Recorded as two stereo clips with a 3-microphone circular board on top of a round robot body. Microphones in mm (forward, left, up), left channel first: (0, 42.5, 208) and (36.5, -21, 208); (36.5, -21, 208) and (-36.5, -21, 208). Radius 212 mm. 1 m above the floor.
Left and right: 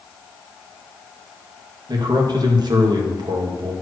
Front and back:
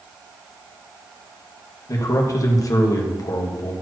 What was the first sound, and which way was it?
A man speaking, 40° right.